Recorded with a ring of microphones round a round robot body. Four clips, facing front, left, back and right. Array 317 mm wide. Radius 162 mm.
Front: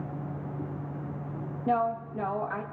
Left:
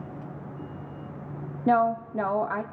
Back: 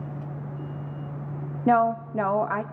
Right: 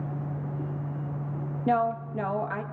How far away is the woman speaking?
About 0.7 m.